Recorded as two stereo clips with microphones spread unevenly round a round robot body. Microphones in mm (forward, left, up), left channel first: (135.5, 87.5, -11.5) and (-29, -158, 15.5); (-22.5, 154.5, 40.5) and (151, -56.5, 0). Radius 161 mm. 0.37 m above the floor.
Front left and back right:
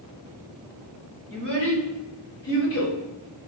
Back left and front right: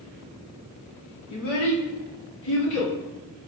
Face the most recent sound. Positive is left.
turn(degrees=110)